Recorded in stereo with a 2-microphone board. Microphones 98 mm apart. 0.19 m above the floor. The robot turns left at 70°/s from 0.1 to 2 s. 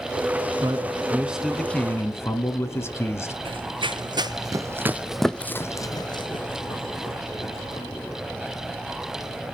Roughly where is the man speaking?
Behind right.